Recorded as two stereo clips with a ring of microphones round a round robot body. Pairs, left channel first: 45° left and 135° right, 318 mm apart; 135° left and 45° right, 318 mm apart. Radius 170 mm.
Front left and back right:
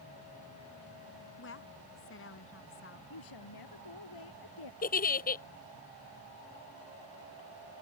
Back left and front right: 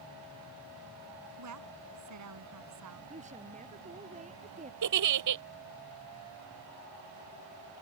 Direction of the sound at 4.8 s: 20° right.